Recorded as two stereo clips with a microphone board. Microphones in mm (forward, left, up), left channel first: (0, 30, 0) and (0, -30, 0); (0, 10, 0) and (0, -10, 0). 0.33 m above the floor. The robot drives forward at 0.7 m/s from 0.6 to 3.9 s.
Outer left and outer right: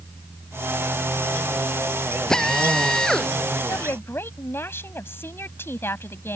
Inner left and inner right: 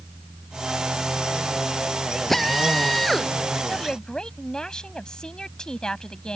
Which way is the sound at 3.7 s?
45° left (ahead or behind).